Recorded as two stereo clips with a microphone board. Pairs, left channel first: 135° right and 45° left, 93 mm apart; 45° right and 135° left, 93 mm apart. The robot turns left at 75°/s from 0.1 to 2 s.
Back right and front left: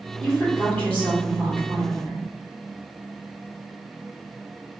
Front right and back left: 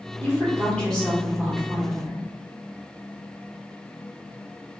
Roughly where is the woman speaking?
Ahead right.